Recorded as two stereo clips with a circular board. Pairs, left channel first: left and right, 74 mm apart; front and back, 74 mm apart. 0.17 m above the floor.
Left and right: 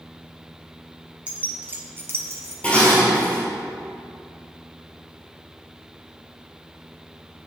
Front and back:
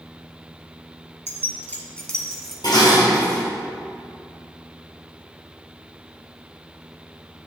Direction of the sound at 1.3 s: 30° right.